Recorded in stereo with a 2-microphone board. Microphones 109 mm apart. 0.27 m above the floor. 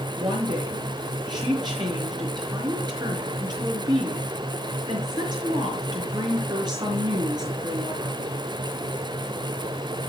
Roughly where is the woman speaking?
Right.